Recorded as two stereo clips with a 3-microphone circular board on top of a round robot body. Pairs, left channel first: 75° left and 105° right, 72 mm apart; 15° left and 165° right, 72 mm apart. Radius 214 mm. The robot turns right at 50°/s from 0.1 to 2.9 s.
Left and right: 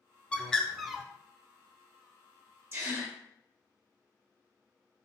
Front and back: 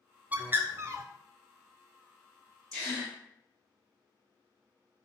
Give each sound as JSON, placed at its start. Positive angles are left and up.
{"t": 0.3, "sound": "a bird", "azimuth_deg": 140, "distance_m": 0.6}
{"t": 2.7, "sound": "a gasp", "azimuth_deg": -65, "distance_m": 1.8}